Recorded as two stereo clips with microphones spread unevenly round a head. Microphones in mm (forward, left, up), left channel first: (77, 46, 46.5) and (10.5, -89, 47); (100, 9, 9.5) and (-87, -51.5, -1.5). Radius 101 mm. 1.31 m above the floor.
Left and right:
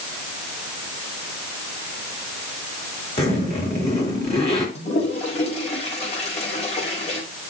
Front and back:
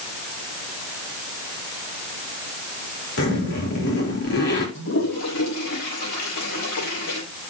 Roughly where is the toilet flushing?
Ahead.